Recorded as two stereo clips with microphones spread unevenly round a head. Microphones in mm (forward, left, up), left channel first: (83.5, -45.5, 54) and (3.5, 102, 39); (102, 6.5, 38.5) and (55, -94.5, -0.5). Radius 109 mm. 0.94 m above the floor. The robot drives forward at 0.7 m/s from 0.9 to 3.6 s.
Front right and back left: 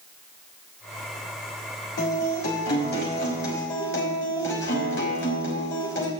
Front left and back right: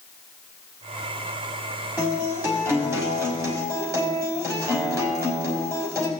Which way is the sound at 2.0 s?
40° right.